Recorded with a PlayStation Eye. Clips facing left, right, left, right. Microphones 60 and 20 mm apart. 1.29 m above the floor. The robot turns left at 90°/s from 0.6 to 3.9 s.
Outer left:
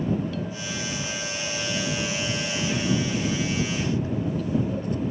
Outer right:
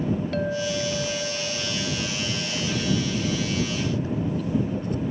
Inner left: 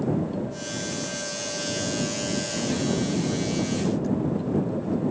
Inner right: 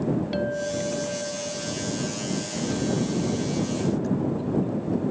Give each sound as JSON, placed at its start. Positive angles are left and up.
{"t": 0.3, "sound": "a clink", "azimuth_deg": -90}